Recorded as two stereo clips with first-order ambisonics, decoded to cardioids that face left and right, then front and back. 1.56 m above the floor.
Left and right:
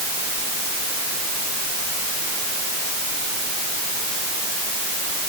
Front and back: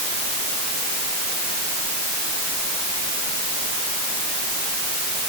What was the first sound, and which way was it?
Only background noise.